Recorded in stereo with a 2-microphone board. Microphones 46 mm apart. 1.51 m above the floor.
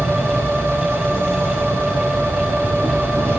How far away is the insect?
About 1.1 m.